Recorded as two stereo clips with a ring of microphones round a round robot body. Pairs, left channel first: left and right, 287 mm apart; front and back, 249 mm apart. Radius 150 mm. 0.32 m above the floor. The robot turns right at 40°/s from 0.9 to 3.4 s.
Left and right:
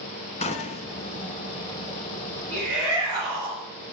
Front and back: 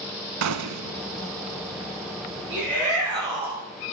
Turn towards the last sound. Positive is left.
turn(degrees=-150)